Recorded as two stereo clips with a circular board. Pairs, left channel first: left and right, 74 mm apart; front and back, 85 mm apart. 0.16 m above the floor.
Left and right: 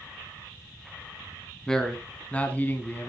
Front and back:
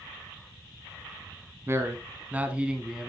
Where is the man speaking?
165° left, 1.3 m; by 3.1 s 95° left, 1.3 m.